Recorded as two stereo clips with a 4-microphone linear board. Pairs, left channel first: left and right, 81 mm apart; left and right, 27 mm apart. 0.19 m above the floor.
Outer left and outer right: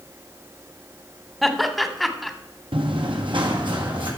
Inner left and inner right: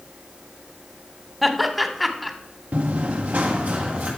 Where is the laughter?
Centre (ahead or behind), 1.0 m.